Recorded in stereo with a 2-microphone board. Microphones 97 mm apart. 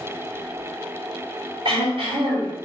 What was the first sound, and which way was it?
Throat clearing, 65° right (ahead or behind).